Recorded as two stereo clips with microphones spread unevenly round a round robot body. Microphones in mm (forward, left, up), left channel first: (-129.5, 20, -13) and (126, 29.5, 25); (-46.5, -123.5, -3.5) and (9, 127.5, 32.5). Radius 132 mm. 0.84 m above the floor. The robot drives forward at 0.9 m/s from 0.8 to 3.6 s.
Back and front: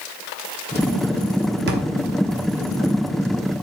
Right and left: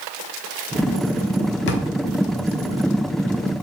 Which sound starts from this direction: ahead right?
A drawer, at 1.7 s.